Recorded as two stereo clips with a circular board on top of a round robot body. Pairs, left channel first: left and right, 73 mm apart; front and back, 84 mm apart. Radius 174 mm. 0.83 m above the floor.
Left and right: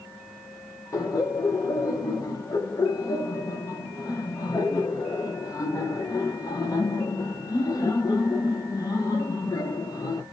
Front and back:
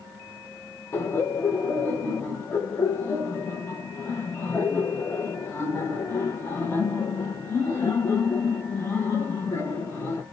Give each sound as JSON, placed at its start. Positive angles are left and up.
{"t": 0.9, "sound": "laughter", "azimuth_deg": 55, "distance_m": 1.0}